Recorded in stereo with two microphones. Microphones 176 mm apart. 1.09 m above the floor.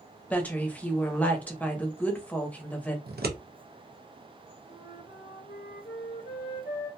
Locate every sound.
0.3 s a woman speaking: 10° left (ahead or behind), 0.8 m
3.1 s scissors: 60° right (ahead or behind), 0.6 m
4.7 s a flute: 85° left, 1.1 m